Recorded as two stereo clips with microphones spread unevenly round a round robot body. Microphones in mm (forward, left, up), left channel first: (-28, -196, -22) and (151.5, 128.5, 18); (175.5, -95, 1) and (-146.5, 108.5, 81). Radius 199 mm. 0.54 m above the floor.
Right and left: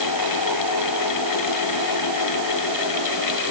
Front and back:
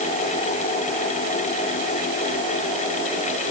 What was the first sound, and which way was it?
Only background noise.